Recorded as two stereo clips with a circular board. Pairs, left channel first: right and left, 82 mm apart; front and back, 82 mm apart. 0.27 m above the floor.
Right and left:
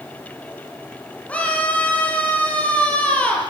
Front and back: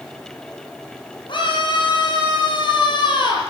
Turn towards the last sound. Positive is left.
turn(degrees=-15)